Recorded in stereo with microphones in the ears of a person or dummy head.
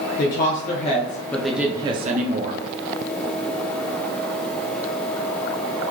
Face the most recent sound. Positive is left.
turn(degrees=-50)  # may be behind; listen again after turning